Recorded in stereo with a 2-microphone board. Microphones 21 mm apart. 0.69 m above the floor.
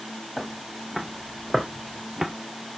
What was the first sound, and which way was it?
Footsteps, 10° left (ahead or behind).